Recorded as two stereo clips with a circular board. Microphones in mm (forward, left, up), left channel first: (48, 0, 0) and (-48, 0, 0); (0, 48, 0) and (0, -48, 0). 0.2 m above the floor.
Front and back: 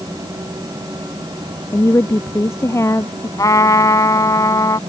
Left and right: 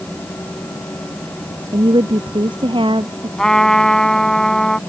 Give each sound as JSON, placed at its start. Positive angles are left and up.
{"t": 1.7, "sound": "a woman speaking", "azimuth_deg": -60}
{"t": 3.4, "sound": "a trumpet", "azimuth_deg": 10}